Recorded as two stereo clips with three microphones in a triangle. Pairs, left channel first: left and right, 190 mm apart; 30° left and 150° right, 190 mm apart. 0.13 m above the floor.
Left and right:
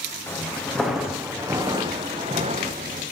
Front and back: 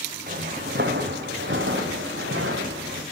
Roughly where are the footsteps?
Behind.